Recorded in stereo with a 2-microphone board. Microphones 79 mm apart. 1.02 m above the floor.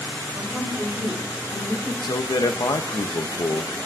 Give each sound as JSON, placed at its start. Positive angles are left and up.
{"t": 0.3, "sound": "a woman speaking", "side_deg": 5, "distance_m": 5.5}
{"t": 2.0, "sound": "a man speaking", "side_deg": 60, "distance_m": 0.8}